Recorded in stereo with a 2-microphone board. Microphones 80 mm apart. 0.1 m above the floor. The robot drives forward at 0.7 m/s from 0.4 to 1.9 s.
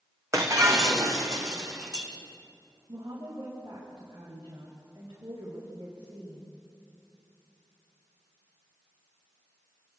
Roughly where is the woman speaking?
Right.